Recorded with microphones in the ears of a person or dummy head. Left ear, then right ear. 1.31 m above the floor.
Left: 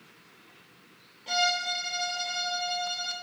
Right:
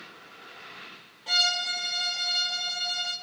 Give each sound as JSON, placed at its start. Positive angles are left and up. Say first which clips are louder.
{"t": 1.3, "sound": "a violin", "louder": "right 2 dB", "side_deg": -20, "distance_m": 1.3}